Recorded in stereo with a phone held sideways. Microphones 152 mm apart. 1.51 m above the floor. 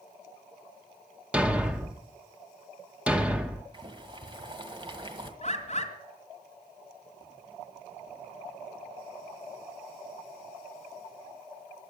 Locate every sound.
1.3 s a thud: 10° right (ahead or behind), 1.1 m
3.7 s boiling: 35° right (ahead or behind), 1.6 m
5.4 s a bird: 45° left (ahead or behind), 1.9 m